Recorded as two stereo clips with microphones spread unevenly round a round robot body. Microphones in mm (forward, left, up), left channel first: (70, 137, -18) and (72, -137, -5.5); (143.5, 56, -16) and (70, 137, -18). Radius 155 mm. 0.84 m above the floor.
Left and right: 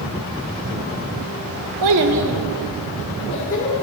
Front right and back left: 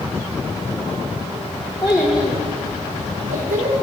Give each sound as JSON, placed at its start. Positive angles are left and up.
{"t": 1.8, "sound": "a child speaking", "azimuth_deg": -120, "distance_m": 0.6}